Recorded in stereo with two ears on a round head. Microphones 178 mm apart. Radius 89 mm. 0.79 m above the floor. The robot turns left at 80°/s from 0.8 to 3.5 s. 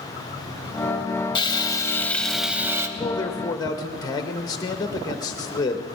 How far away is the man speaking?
About 0.6 m.